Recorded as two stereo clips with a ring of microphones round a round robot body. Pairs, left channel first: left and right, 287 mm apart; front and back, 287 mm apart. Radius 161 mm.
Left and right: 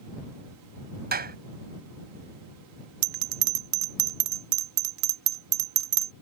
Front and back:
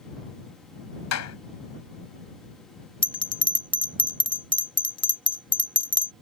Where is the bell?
75° right.